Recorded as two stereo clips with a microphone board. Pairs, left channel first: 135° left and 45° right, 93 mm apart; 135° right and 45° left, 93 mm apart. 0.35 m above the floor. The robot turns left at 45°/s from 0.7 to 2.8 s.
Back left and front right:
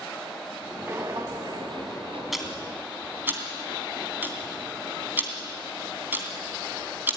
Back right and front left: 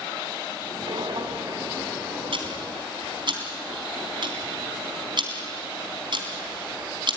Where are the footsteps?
20° left, 1.6 m; by 2.2 s 30° right, 2.5 m.